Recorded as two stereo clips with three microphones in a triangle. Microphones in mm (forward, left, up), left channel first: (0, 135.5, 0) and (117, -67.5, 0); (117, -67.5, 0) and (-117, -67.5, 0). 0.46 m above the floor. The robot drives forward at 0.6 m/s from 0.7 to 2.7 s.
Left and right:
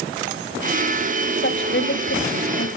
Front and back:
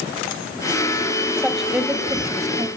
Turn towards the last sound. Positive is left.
turn(degrees=110)